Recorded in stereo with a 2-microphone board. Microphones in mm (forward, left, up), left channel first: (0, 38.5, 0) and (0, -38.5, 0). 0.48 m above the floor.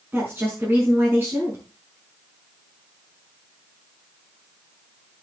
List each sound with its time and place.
0.1 s a woman speaking: 25° right (ahead or behind), 6 m